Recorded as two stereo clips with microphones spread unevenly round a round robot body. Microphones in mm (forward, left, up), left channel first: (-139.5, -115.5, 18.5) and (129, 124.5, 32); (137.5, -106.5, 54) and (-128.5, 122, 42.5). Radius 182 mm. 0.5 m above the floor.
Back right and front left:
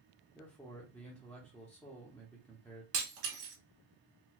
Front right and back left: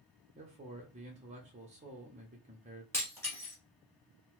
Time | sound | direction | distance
0.3 | a man speaking | 145° left | 0.7 m
2.9 | breaking glass | 40° left | 1.5 m